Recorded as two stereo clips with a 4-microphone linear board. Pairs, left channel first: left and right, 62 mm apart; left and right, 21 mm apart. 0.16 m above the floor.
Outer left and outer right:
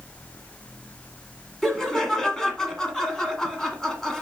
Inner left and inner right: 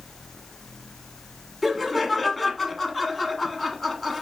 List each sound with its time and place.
1.6 s laughter: 5° left (ahead or behind), 1.3 m